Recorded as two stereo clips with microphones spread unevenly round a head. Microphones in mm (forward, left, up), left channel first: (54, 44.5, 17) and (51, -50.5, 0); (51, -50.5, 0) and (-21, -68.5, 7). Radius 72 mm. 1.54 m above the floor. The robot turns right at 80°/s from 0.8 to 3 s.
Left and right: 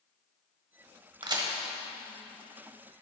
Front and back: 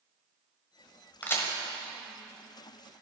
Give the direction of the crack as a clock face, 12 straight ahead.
2 o'clock.